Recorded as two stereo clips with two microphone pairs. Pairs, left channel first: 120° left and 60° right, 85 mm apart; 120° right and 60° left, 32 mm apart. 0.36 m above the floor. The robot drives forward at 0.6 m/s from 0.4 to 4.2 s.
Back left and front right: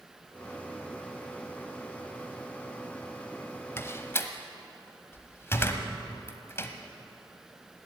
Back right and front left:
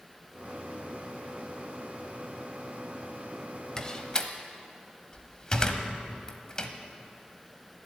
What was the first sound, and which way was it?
A door slam, 175° left.